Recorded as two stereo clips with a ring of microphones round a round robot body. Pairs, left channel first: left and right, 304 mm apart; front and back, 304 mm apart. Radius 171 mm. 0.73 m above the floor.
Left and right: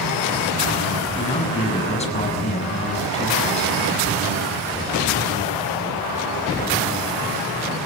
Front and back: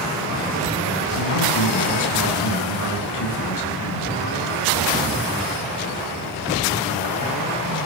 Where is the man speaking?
20° left, 7.5 m.